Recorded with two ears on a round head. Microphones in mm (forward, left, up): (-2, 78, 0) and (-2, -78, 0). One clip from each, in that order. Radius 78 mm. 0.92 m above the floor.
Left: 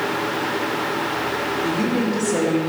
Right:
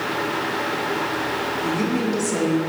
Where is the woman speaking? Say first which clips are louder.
Left 1 dB; 30° right (ahead or behind), 1.9 m.